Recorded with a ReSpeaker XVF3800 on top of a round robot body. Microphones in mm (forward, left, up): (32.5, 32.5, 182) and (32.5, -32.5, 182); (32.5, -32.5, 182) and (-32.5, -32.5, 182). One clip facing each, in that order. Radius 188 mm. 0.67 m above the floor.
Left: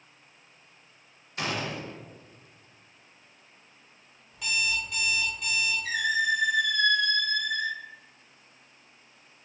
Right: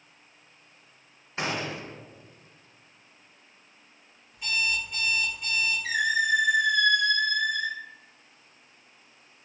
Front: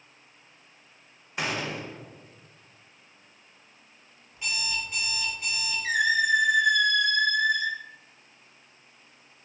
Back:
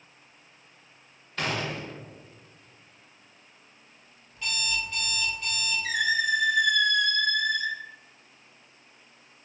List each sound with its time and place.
1.4 s a gunshot: 65° right, 0.8 m
4.3 s an alarm clock: 75° left, 0.6 m
5.8 s a squeak: 70° right, 1.0 m